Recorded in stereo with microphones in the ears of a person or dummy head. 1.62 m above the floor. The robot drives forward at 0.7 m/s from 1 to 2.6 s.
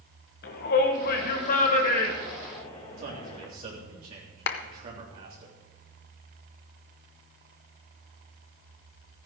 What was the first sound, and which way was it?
A shout, 55° left (ahead or behind).